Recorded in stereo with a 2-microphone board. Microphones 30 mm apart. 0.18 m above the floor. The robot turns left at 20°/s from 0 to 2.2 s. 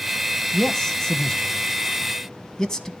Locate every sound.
0.5 s a man speaking: 15° left (ahead or behind), 1.0 m; by 2.9 s 20° left (ahead or behind), 1.0 m